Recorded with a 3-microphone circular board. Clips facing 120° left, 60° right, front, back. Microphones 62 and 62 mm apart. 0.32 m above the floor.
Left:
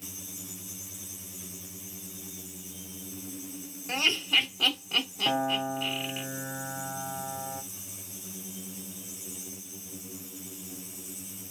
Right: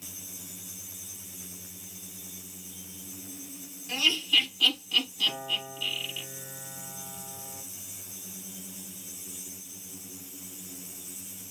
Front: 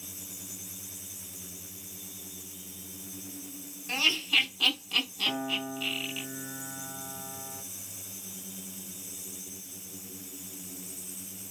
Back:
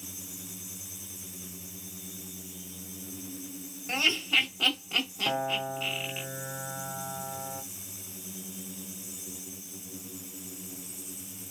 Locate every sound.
3.9 s laughter: 135° left, 1.9 m
5.2 s a piano: 130° left, 0.7 m